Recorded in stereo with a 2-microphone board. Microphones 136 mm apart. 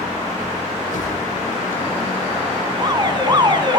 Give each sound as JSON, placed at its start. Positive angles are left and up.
{"t": 0.9, "sound": "a whoosh", "side_deg": 85, "distance_m": 9.0}
{"t": 2.7, "sound": "an alarm", "side_deg": -35, "distance_m": 4.0}